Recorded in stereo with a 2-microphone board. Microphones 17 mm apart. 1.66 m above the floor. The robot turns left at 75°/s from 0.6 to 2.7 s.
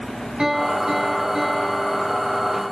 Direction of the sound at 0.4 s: 105° right.